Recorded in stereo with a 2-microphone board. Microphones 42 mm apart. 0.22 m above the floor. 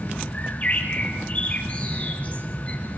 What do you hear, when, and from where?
0.3 s a bird: 40° left (ahead or behind), 6 m